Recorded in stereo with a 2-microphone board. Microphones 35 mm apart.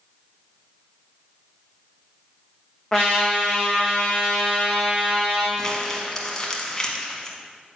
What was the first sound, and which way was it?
A trumpet, 15° left (ahead or behind).